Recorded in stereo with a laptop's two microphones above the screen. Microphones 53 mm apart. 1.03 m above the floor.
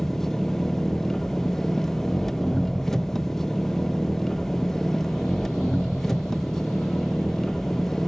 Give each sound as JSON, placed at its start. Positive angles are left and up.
{"t": 0.0, "sound": "an engine running", "side_deg": 5, "distance_m": 0.7}